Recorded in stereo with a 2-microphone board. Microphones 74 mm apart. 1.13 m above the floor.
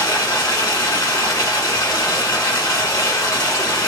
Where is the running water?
50° left (ahead or behind), 1.3 m.